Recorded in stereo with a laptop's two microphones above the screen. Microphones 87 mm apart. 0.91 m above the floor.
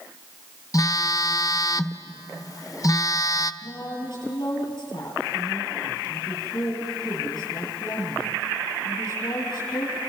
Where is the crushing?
I don't hear crushing.